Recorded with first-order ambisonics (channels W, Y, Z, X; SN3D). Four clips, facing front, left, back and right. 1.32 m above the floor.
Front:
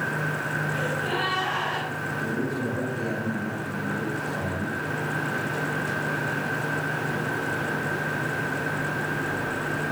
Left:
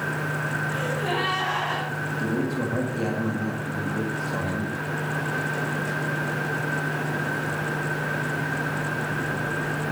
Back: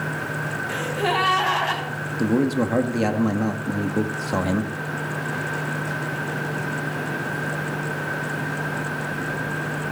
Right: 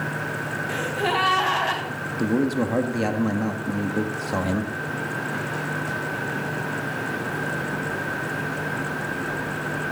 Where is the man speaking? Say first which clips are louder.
Right 6 dB, back 10 dB; 150° right, 1.6 m.